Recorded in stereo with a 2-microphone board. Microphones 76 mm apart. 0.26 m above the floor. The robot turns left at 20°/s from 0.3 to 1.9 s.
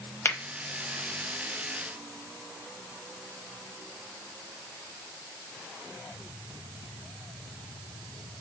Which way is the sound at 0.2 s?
35° left (ahead or behind).